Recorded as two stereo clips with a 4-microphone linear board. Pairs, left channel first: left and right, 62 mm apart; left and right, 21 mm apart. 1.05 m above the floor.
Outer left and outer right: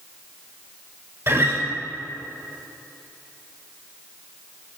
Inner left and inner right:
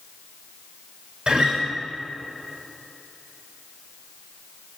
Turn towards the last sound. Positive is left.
turn(degrees=-50)  # may be behind; listen again after turning